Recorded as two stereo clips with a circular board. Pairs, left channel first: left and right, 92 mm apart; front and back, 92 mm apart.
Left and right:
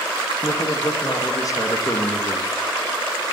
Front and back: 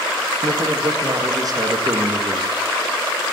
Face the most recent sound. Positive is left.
turn(degrees=140)